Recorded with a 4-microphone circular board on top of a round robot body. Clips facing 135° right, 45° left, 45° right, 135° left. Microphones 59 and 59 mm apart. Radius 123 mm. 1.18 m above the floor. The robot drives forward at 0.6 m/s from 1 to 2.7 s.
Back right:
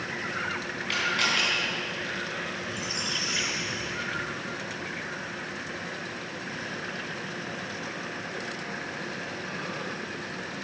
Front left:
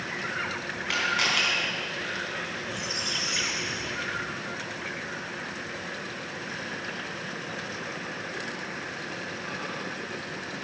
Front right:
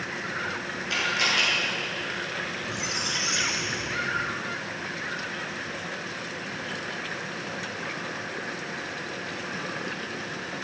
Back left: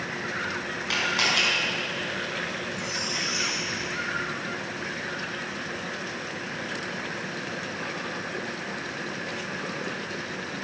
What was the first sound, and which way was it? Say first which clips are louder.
A camera shutter: front left 1 dB, even; 130° left.